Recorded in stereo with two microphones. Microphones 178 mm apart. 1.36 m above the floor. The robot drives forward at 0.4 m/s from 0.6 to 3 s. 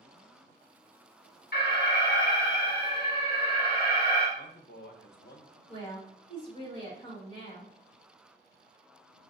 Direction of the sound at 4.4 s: 75° left (ahead or behind).